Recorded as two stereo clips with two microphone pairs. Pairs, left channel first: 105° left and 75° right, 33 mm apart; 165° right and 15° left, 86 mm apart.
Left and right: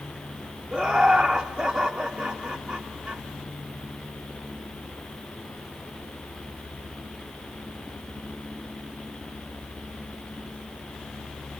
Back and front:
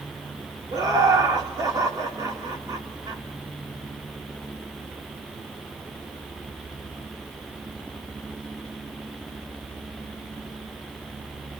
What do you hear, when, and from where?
0.7 s laughter: 15° right, 2.5 m